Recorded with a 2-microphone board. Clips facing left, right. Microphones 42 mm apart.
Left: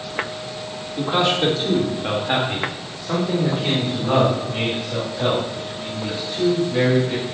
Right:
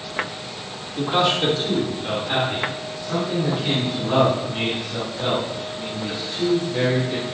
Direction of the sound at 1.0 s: Centre (ahead or behind).